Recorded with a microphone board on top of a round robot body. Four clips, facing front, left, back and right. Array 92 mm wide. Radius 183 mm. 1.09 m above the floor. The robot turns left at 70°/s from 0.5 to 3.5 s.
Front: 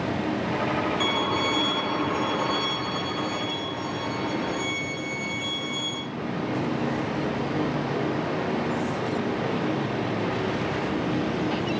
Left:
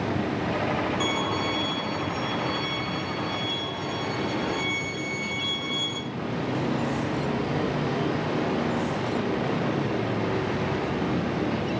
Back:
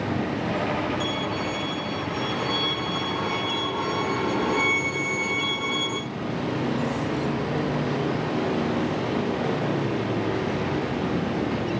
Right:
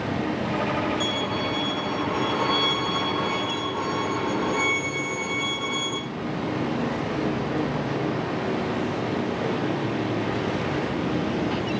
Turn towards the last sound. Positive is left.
turn(degrees=-140)